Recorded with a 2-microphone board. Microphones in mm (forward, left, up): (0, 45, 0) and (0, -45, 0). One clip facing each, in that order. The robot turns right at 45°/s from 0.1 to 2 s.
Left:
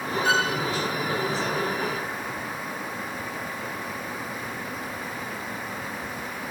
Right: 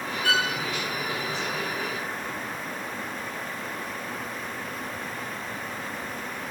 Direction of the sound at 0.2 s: 20° left (ahead or behind).